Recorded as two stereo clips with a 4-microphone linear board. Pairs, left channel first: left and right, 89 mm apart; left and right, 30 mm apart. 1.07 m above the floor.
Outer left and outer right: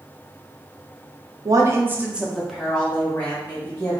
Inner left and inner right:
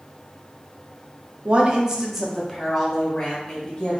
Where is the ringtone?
I don't hear a ringtone.